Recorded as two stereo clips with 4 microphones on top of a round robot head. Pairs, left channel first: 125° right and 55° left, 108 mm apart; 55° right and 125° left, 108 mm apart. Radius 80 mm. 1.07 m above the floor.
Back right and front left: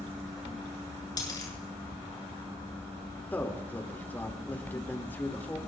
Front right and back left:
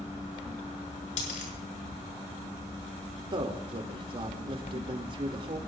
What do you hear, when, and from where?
1.2 s a dropped coin: 65° right, 7 m
3.3 s a man speaking: 165° left, 2.5 m